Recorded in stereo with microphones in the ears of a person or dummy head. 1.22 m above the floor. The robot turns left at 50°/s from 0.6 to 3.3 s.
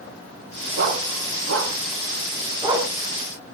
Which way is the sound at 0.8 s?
60° right (ahead or behind).